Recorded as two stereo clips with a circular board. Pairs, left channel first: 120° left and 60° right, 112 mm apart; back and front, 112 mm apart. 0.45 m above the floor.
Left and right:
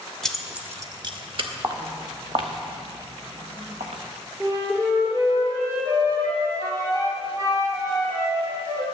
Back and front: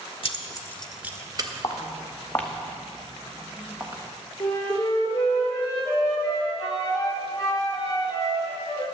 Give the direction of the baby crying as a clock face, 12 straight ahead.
I don't hear a baby crying.